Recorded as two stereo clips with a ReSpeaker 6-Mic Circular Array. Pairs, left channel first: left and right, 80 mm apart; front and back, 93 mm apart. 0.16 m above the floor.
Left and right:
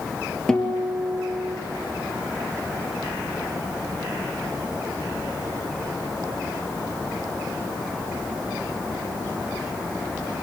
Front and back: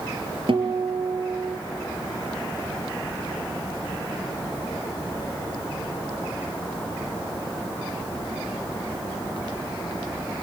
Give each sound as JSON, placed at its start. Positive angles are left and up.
{"t": 0.5, "sound": "a guitar", "azimuth_deg": 175, "distance_m": 3.0}